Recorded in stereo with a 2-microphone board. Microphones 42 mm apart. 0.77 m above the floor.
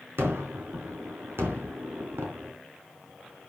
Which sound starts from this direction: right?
A gunshot, at 0.2 s.